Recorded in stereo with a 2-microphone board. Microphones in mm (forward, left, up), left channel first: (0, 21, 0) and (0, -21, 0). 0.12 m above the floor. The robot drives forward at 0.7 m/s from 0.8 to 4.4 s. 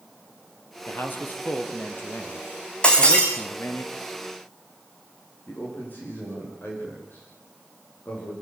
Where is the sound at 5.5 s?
40° left (ahead or behind), 9.5 m.